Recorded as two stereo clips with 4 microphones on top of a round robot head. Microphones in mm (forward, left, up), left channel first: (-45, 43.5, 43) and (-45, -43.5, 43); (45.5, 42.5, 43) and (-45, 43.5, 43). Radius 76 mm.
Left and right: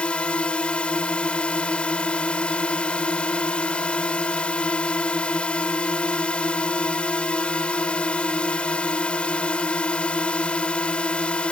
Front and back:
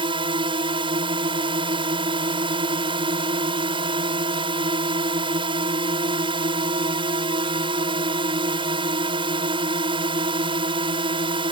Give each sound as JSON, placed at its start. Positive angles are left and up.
{"t": 0.0, "sound": "a drone", "azimuth_deg": 165}